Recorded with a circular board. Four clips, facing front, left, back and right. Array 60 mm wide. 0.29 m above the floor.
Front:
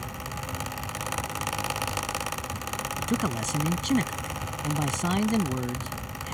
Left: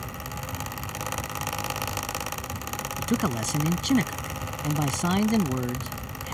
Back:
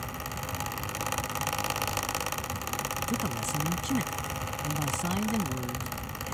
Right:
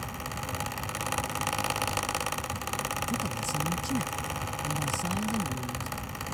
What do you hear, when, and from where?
3.0 s a man speaking: 70° left